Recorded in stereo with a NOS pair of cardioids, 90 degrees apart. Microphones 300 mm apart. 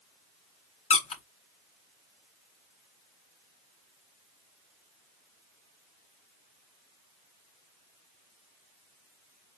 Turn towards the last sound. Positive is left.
turn(degrees=25)